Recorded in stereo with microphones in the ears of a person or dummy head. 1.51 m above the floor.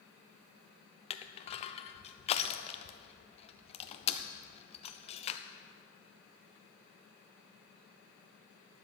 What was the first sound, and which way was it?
Crushing, 35° left (ahead or behind).